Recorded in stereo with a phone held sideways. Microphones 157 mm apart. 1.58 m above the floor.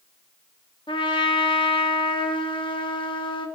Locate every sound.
0.9 s a trumpet: 30° left (ahead or behind), 1.9 m